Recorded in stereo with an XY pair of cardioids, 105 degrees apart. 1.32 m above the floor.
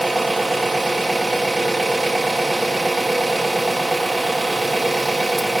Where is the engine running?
10° right, 0.8 m.